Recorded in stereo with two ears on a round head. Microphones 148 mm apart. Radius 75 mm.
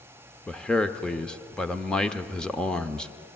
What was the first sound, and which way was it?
A man speaking, 5° left (ahead or behind).